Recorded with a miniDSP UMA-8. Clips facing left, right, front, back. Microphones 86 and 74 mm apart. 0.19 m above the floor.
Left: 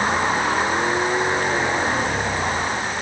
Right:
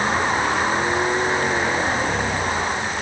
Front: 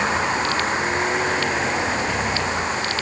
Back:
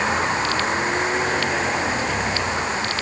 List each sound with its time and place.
Only background noise.